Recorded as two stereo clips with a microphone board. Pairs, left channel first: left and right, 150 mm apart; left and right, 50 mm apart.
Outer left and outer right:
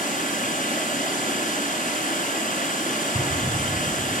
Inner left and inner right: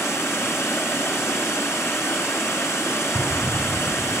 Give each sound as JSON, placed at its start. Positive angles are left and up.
{"t": 0.0, "sound": "running water", "side_deg": 65, "distance_m": 1.5}
{"t": 3.1, "sound": "an explosion", "side_deg": 80, "distance_m": 5.0}